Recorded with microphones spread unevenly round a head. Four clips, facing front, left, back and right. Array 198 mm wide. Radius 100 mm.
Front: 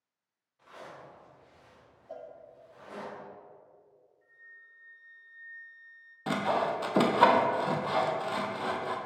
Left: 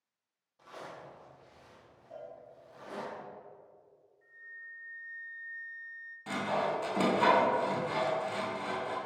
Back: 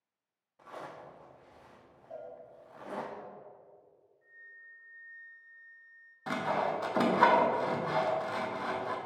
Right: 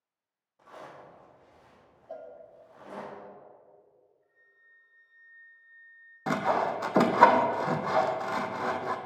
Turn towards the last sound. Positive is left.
turn(degrees=-60)